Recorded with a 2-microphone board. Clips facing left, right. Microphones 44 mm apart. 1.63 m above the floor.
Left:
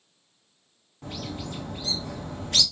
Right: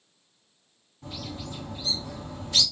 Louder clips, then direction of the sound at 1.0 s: Left 3 dB; 55° left (ahead or behind).